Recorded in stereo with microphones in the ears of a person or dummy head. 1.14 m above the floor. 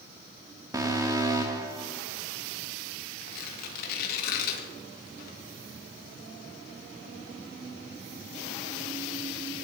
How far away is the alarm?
About 0.8 m.